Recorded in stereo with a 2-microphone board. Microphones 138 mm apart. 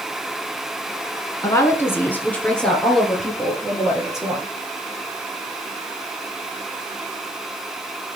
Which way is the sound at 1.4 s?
25° left (ahead or behind).